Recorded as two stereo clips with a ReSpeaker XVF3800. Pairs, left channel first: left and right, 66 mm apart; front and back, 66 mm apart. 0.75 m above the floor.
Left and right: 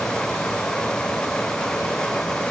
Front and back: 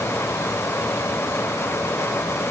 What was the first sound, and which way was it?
Only background noise.